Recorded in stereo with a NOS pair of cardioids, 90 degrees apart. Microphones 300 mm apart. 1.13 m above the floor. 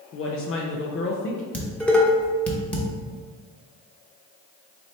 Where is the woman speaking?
45° left, 0.6 m.